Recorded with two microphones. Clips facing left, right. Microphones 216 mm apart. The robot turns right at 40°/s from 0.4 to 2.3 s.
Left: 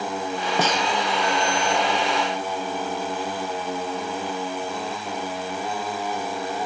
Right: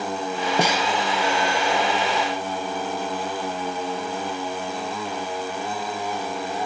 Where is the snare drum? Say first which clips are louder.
Right 1 dB; 10° right (ahead or behind); by 0.9 s centre (ahead or behind).